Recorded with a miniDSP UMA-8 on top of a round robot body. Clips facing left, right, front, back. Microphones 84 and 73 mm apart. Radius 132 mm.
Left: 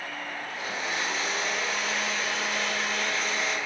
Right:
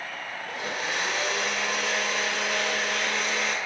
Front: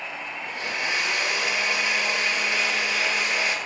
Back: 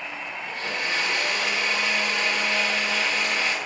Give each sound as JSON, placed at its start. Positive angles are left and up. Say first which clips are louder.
{"t": 0.5, "sound": "a blender", "louder": "right 3 dB, even", "azimuth_deg": -70, "distance_m": 2.5}